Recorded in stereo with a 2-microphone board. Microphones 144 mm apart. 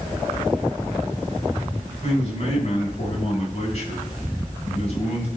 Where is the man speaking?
50° left (ahead or behind), 3 m.